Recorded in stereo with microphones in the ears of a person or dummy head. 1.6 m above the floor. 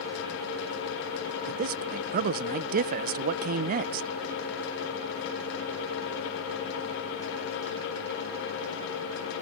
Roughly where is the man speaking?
Right.